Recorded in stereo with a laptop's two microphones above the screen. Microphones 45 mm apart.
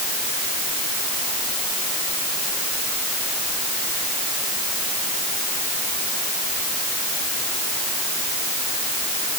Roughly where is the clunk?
No clunk in this recording.